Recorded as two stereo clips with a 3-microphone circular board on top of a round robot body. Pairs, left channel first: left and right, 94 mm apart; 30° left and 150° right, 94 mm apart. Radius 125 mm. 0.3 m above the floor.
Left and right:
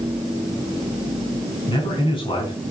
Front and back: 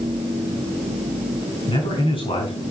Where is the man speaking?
55° left, 4.5 m.